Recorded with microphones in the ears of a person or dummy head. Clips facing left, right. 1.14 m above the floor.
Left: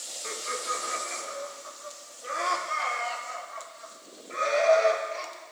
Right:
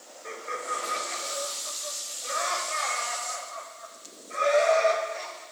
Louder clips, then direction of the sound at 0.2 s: Even; 80° left.